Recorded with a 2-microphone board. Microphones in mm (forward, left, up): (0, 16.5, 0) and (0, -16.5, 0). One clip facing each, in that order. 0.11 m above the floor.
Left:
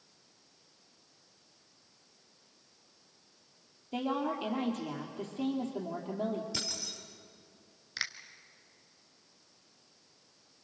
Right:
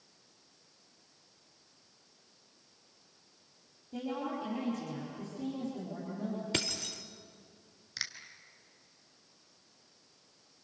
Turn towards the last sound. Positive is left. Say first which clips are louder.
# left 4 dB
turn(degrees=15)  # may be behind; listen again after turning